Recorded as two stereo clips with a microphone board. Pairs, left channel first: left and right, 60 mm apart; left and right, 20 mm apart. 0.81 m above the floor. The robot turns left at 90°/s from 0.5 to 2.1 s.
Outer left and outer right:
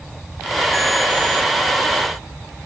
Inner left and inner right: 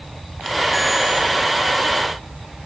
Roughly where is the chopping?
No chopping in this recording.